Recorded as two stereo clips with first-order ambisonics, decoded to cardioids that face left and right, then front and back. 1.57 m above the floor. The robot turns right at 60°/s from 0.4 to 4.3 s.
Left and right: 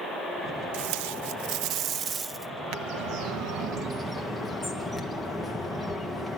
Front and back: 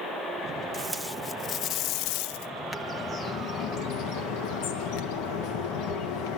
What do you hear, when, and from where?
0.7 s tape being pulled: 105° right, 0.5 m; by 2.5 s straight ahead, 0.5 m
2.7 s a bird: 100° right, 1.2 m; by 6.4 s 5° right, 1.2 m